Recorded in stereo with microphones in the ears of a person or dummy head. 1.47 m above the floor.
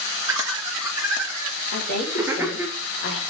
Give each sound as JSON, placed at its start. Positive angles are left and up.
{"t": 0.3, "sound": "laughter", "side_deg": -15, "distance_m": 2.5}
{"t": 1.7, "sound": "a woman speaking", "side_deg": 60, "distance_m": 3.5}